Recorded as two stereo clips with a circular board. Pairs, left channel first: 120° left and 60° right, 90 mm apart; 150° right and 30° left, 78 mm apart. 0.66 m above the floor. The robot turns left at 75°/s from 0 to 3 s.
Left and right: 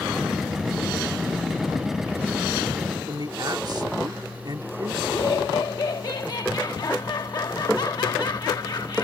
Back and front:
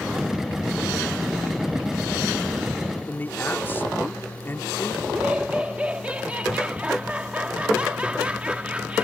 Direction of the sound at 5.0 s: 100° left.